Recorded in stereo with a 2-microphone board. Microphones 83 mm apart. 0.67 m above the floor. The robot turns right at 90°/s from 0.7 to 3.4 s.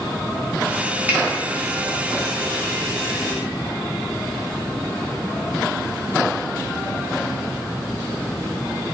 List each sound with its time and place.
1.1 s a finger snap: 25° right (ahead or behind), 0.7 m; by 1.2 s 15° right (ahead or behind), 0.7 m